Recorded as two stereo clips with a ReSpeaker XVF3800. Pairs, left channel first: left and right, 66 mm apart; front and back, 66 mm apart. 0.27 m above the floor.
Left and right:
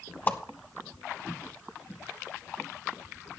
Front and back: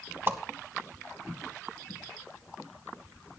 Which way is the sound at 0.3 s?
140° left.